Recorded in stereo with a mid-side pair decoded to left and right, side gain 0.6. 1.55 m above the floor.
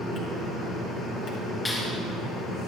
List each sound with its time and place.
0.0 s a fan: 55° left, 2.5 m
1.6 s a clap: 20° left, 2.5 m